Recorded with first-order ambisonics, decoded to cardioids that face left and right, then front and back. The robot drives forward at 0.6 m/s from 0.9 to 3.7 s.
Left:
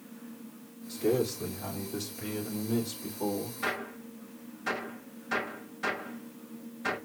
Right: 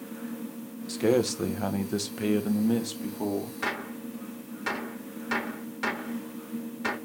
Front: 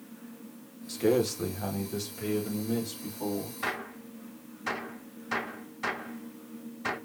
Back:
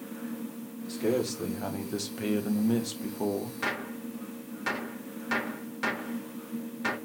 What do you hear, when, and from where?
0.9 s a man speaking: 70° right, 1.0 m; by 3.5 s 145° right, 1.6 m
3.6 s a gunshot: 140° right, 1.7 m